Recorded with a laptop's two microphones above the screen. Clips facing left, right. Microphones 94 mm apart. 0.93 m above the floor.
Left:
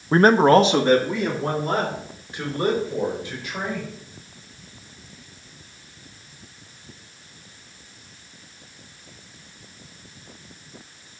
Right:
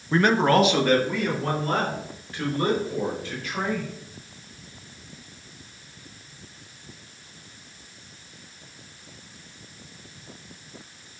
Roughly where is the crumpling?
No crumpling in this recording.